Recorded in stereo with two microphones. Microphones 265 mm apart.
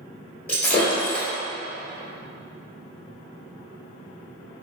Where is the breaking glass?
40° left (ahead or behind), 1.2 m.